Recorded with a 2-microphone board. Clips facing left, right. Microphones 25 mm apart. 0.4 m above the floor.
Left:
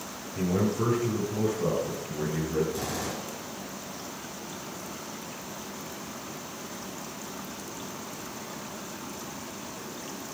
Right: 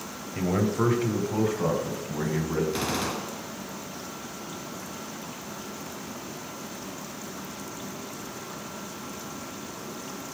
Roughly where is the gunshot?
Right.